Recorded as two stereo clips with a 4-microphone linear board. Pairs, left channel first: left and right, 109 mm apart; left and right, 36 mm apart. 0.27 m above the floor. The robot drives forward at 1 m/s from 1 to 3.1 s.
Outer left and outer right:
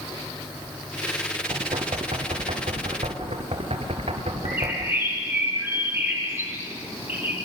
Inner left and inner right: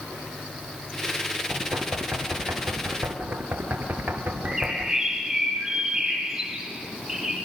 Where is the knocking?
55° right (ahead or behind), 3.5 m; by 5.0 s 75° right (ahead or behind), 3 m.